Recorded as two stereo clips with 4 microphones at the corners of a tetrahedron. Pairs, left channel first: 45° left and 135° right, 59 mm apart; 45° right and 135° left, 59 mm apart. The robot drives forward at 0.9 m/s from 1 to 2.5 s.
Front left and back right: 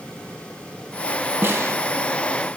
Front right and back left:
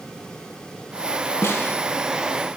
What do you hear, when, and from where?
1.4 s a snare drum: 85° right, 0.8 m; by 1.8 s 105° right, 0.8 m